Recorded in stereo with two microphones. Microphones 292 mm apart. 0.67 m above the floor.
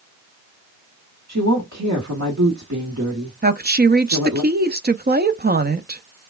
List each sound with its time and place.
1.3 s a woman speaking: 70° right (ahead or behind), 1.4 m
3.4 s a woman speaking: 35° right (ahead or behind), 0.6 m